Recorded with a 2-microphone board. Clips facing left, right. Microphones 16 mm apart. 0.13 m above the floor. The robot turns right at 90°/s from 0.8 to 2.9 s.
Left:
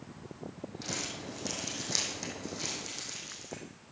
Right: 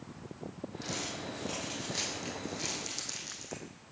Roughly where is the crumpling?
Centre.